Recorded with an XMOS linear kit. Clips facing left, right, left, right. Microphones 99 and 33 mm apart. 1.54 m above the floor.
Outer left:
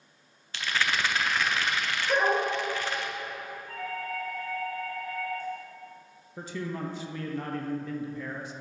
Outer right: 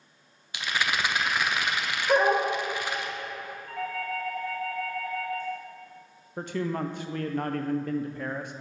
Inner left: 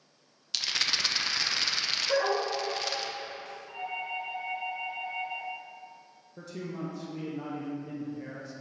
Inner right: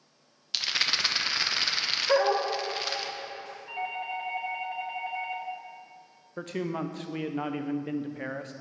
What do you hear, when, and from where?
0.5 s a rattle: 15° right (ahead or behind), 0.5 m
2.1 s a dog barking: 45° right (ahead or behind), 1.7 m
3.7 s a doorbell: 80° right, 1.8 m
6.4 s a man speaking: 55° right (ahead or behind), 0.6 m